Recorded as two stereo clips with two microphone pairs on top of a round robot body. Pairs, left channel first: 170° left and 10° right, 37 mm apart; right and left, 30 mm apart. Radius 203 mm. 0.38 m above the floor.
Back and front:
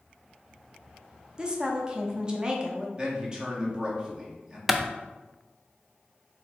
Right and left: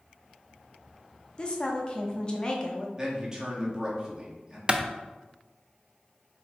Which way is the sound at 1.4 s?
60° right.